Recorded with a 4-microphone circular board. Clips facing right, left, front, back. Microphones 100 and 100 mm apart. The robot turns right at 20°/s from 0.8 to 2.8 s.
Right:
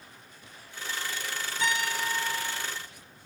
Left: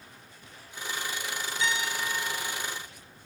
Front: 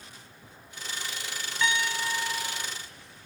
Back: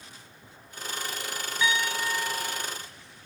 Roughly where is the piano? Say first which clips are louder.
Right 2 dB, back 1 dB; right.